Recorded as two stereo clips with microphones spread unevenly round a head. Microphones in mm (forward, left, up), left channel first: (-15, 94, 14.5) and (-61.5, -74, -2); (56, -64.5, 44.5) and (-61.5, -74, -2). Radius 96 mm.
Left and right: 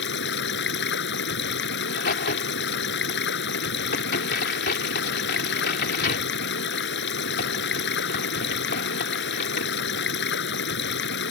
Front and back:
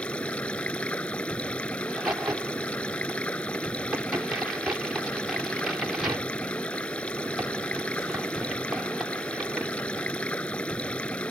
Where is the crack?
100° left.